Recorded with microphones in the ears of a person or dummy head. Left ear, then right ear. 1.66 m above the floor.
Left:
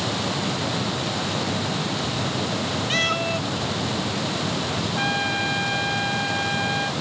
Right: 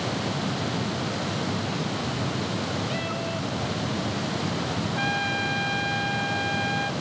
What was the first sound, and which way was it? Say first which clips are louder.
A cat meowing: left 8 dB; 70° left (ahead or behind).